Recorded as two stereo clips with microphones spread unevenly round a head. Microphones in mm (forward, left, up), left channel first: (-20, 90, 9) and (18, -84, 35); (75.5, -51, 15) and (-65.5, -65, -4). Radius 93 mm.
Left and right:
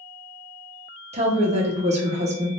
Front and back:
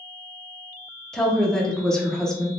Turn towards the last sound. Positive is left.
turn(degrees=-90)